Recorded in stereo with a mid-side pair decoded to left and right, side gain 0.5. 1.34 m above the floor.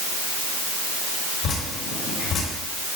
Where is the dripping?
60° left, 5.5 m.